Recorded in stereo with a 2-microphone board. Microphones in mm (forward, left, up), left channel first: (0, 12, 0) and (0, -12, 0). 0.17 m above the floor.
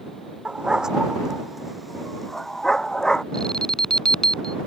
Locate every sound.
0.5 s a dog barking: 40° right (ahead or behind); by 3.2 s 30° left (ahead or behind)
3.3 s an alarm: 35° left (ahead or behind)